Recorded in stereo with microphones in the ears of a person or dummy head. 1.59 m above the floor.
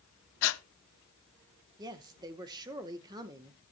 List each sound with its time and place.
0.4 s breathing: 75° left (ahead or behind), 0.5 m
1.8 s a woman speaking: 20° right (ahead or behind), 0.9 m